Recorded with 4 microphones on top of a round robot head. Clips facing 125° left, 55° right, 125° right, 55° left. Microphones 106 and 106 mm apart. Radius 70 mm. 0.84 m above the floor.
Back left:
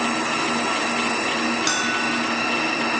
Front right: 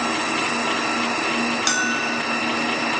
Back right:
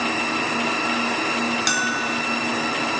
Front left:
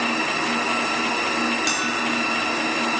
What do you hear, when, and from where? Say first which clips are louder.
1.7 s a bell: even, even; 95° right, 0.8 m